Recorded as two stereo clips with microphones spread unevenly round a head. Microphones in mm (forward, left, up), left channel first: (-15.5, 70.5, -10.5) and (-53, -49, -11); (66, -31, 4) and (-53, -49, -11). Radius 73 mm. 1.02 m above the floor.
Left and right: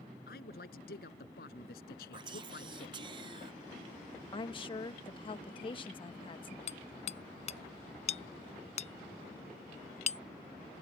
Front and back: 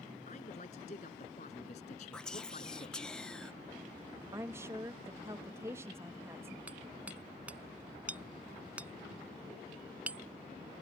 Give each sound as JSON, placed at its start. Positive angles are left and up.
{"t": 0.3, "sound": "a man speaking", "azimuth_deg": 55}
{"t": 2.1, "sound": "whispering", "azimuth_deg": -80}
{"t": 4.3, "sound": "a woman speaking", "azimuth_deg": 120}
{"t": 6.7, "sound": "hammering", "azimuth_deg": 105}